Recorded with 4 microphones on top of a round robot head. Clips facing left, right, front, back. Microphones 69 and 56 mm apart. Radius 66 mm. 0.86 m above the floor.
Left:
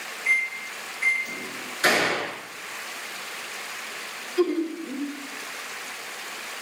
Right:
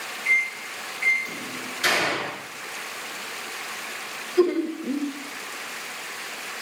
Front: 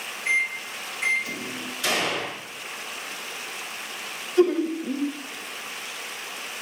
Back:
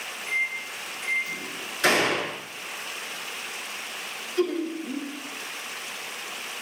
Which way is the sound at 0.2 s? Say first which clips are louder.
Right 1 dB, front 4 dB; 5° left.